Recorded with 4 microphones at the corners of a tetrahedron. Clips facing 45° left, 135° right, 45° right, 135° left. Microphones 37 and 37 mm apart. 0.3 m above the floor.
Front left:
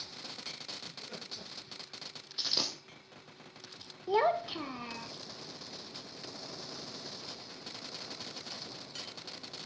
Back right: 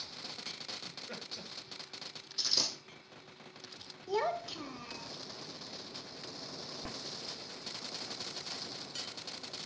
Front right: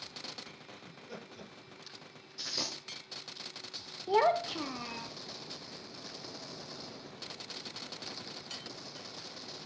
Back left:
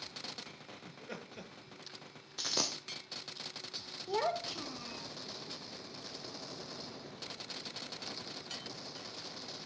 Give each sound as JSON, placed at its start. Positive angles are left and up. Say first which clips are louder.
{"t": 0.8, "sound": "laughter", "louder": "even, back left 2 dB", "azimuth_deg": 160, "distance_m": 7.0}
{"t": 2.4, "sound": "a dropped coin", "louder": "front left 1 dB, back left 2 dB", "azimuth_deg": 110, "distance_m": 3.0}
{"t": 4.1, "sound": "a child speaking", "louder": "front left 5 dB, front right 7 dB", "azimuth_deg": -5, "distance_m": 0.6}